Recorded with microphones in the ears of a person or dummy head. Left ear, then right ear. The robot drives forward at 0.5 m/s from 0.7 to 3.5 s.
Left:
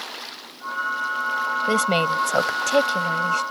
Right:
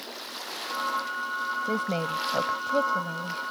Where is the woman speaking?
85° left; by 3.4 s 80° left.